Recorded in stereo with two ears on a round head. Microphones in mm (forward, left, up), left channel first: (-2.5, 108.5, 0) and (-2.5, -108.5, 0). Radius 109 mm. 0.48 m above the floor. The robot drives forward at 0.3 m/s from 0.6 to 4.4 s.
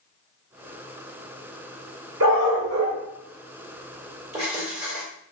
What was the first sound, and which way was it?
A dog barking, 60° right (ahead or behind).